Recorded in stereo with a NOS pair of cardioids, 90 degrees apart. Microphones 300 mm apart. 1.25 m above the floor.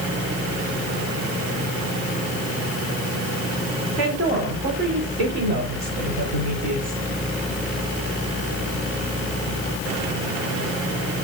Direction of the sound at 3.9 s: 50° right.